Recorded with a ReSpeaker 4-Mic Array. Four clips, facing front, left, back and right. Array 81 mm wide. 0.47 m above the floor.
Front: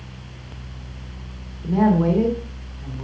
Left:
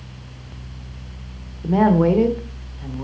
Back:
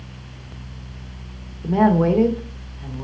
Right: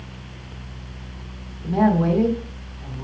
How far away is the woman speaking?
About 1.4 m.